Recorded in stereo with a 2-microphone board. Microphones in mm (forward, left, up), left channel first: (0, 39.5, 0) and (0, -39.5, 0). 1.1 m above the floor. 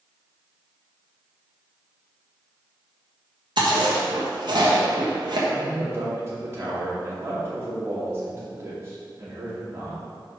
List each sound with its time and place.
3.6 s chewing: 60° right (ahead or behind), 1.5 m
5.5 s a man speaking: 30° right (ahead or behind), 2.5 m